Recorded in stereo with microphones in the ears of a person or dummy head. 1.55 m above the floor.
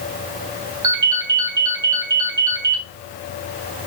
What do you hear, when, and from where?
0.8 s a ringtone: 15° right (ahead or behind), 0.8 m